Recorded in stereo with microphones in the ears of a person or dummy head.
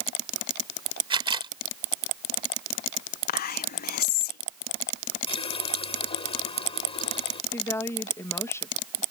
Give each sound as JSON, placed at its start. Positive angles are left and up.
{"t": 1.1, "sound": "a camera shutter", "side_deg": -25}
{"t": 3.3, "sound": "whispering", "side_deg": 55}
{"t": 5.3, "sound": "a running tap", "side_deg": 35}
{"t": 7.5, "sound": "a woman speaking", "side_deg": 15}